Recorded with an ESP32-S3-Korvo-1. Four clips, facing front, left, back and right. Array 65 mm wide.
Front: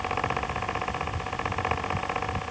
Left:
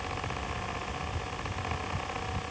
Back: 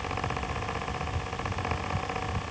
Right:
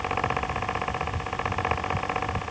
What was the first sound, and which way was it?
Only background noise.